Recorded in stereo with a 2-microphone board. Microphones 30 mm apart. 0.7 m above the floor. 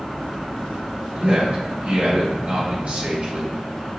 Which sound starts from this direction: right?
A man speaking, at 1.1 s.